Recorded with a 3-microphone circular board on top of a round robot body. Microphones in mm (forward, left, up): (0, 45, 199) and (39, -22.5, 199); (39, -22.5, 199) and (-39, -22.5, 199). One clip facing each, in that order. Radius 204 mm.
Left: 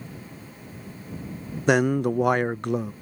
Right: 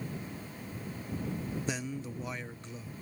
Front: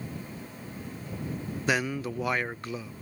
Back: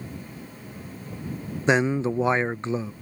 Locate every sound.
1.7 s a man speaking: 120° left